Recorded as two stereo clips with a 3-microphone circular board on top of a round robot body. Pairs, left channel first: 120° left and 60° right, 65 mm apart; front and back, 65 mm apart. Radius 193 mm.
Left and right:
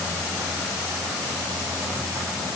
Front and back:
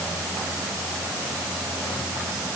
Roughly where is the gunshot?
No gunshot in this recording.